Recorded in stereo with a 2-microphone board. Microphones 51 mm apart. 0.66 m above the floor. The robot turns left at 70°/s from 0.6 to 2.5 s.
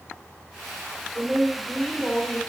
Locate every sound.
1.1 s a woman speaking: 140° right, 2.5 m; by 2.4 s 130° left, 2.5 m